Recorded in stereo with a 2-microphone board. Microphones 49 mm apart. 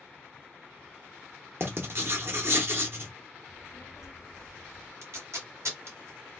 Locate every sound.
1.6 s writing: 55° right (ahead or behind), 0.8 m
3.5 s a child speaking: 85° left, 0.6 m
5.0 s tape being pulled: 70° right (ahead or behind), 1.6 m